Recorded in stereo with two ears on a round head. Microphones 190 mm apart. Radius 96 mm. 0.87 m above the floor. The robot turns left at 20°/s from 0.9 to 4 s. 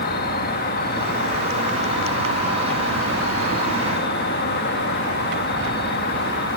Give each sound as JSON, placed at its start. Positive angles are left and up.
{"t": 0.0, "sound": "an insect", "azimuth_deg": 125}